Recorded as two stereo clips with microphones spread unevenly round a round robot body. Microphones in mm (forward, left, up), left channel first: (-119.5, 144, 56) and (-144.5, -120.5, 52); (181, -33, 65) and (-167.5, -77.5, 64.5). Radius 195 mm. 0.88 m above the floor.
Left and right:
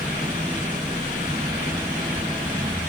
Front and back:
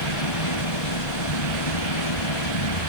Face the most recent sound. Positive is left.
turn(degrees=-15)